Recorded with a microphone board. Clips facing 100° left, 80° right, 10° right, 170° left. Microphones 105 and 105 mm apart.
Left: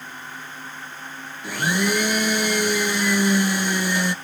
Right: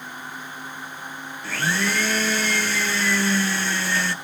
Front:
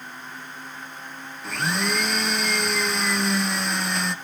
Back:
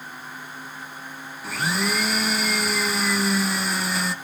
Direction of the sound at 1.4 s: 90° left.